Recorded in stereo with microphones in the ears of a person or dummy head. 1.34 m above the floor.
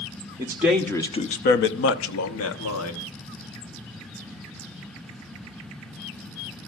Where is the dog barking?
I don't hear a dog barking.